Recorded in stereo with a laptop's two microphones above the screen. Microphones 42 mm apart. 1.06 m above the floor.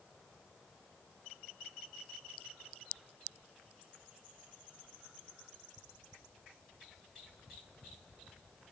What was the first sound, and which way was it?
Only background noise.